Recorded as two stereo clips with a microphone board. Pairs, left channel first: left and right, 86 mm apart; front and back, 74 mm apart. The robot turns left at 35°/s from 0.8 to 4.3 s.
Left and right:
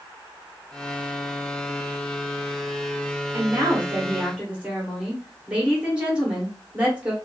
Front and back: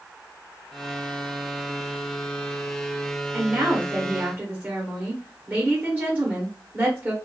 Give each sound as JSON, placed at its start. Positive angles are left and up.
{"t": 3.3, "sound": "a woman speaking", "azimuth_deg": -120, "distance_m": 0.9}